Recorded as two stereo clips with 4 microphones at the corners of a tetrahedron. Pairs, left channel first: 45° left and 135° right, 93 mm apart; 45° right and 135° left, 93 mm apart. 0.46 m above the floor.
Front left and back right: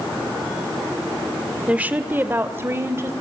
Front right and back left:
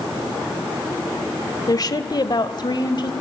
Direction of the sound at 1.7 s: 65° right.